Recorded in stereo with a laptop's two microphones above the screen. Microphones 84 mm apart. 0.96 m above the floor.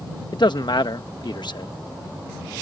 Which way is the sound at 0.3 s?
60° left (ahead or behind).